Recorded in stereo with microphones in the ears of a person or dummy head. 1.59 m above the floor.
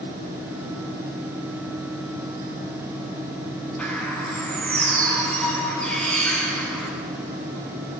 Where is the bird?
10° left (ahead or behind), 7 m.